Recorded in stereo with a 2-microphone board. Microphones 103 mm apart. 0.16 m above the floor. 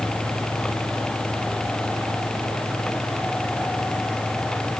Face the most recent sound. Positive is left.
No sound to turn to.